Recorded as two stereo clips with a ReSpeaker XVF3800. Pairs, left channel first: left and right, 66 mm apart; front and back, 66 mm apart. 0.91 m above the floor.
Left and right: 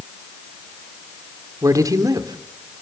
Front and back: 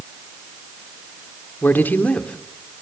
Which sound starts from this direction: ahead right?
A man speaking, at 1.6 s.